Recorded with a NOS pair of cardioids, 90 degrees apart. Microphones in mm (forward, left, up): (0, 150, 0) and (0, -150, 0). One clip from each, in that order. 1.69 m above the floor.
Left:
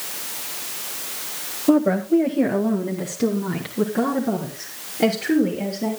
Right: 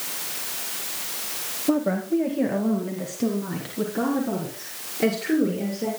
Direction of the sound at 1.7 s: 25° left.